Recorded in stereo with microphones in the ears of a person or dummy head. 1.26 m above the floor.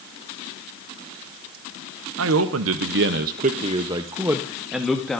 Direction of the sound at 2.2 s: 80° right.